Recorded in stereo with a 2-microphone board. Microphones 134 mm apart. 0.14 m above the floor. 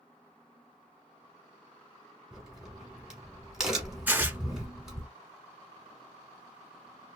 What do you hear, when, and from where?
2.3 s a crack: 5° right (ahead or behind), 1.1 m
4.1 s tearing paper: 15° right (ahead or behind), 0.8 m